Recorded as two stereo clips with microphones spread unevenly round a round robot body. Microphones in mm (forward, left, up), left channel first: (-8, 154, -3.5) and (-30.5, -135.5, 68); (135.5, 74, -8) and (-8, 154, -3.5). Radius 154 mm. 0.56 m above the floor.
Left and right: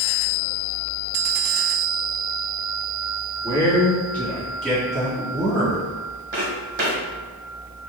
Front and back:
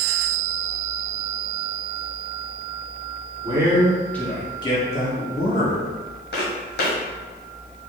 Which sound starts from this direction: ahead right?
Footsteps, at 6.3 s.